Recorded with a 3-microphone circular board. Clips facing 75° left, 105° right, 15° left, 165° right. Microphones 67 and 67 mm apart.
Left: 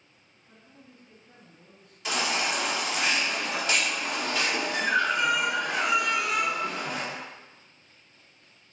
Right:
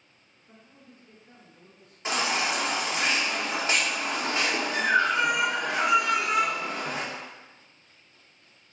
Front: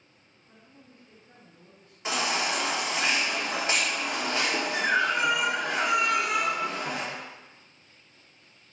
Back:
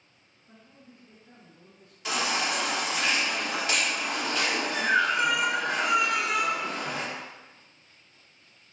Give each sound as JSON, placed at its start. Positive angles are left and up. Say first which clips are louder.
{"t": 0.5, "sound": "a man speaking", "louder": "right 1 dB, back 1 dB", "azimuth_deg": -170, "distance_m": 1.5}
{"t": 2.0, "sound": "a baby crying", "louder": "right 1 dB, even", "azimuth_deg": -45, "distance_m": 0.6}